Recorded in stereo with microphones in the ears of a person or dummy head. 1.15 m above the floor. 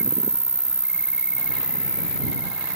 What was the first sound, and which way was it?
An insect, 5° right (ahead or behind).